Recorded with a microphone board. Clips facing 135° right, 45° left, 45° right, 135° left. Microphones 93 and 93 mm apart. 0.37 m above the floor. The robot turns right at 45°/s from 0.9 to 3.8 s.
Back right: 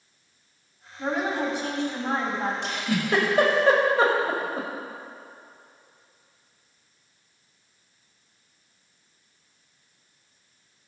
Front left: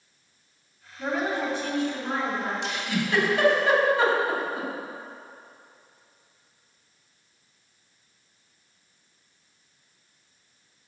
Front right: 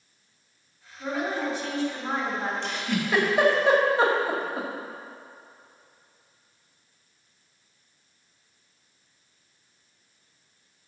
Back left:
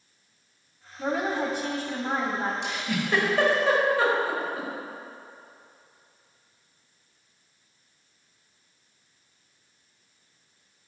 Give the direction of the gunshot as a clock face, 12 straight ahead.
No gunshot in this recording.